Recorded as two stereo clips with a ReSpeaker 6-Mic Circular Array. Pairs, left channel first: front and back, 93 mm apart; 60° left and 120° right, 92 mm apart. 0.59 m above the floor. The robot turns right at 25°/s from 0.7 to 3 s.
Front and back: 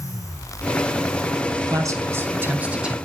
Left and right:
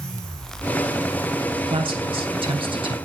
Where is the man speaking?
130° right, 3.5 m; by 2.9 s 100° right, 3.5 m.